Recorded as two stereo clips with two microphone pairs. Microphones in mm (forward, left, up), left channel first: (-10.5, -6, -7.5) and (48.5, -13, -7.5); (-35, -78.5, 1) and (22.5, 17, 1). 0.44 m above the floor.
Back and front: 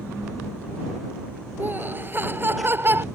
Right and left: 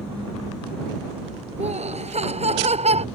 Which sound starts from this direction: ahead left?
Laughter, at 1.6 s.